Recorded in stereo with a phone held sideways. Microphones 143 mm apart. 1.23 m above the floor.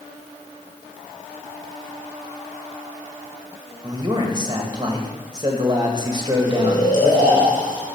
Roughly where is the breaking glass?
No breaking glass in this recording.